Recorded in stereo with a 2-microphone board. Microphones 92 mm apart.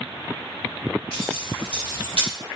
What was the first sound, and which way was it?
Keys jangling, 85° left.